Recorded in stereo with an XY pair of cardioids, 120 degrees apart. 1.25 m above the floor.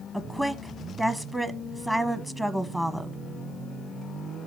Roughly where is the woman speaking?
Ahead.